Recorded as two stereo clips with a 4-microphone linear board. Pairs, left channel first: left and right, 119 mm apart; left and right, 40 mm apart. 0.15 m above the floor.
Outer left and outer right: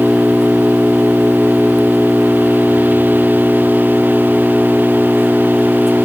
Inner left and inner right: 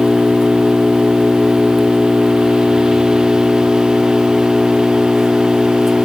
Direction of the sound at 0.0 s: 5° right (ahead or behind).